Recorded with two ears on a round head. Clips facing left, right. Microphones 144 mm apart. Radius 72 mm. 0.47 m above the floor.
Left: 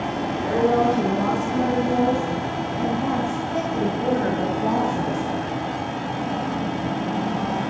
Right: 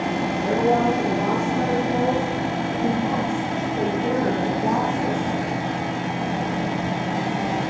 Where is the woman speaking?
50° left (ahead or behind), 5 m; by 5.2 s 25° left (ahead or behind), 3 m.